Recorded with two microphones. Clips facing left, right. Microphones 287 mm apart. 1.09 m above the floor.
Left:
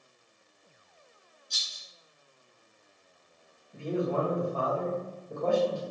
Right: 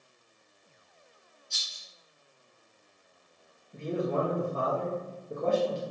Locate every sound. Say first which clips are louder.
1.5 s a rattle: left 2 dB; 40° left (ahead or behind), 0.7 m
3.7 s a man speaking: even; 20° right (ahead or behind), 0.7 m